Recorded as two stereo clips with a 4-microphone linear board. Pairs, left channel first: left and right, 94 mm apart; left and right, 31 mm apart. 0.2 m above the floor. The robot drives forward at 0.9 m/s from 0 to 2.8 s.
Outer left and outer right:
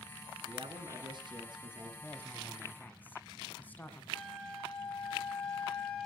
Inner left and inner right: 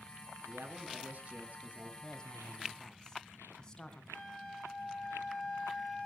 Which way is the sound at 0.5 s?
55° right (ahead or behind).